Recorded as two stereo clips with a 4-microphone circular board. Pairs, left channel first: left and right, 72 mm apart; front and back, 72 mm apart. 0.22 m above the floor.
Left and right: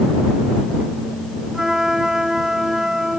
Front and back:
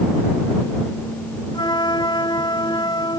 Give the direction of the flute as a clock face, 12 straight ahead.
12 o'clock.